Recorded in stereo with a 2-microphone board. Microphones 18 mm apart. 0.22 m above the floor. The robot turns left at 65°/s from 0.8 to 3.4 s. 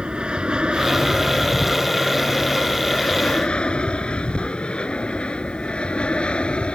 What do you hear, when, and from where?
0.0 s an aircraft: 50° right (ahead or behind); by 6.8 s 65° left (ahead or behind)